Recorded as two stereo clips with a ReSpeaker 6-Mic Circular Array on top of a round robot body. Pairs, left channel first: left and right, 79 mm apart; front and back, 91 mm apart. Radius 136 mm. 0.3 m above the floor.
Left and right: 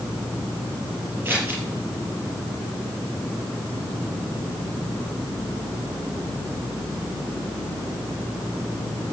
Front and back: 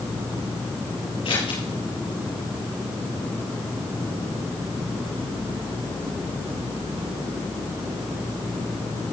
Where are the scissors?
25° right, 6 m.